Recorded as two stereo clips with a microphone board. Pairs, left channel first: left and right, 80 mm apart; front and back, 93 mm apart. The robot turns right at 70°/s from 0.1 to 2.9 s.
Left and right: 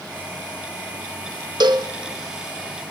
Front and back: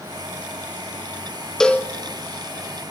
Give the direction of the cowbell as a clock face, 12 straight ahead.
3 o'clock.